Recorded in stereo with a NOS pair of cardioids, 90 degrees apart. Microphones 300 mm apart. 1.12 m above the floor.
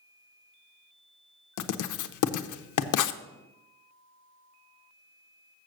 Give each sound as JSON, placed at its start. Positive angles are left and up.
{"t": 1.6, "sound": "writing", "azimuth_deg": 70, "distance_m": 0.7}